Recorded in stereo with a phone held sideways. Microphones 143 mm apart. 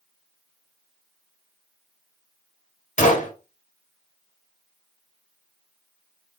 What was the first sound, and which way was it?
A gunshot, 60° left (ahead or behind).